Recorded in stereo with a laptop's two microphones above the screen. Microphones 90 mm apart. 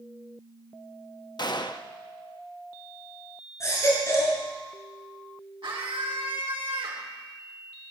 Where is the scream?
80° right, 3 m.